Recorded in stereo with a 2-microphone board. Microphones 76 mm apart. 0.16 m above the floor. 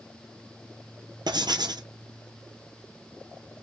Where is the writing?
75° right (ahead or behind), 0.7 m.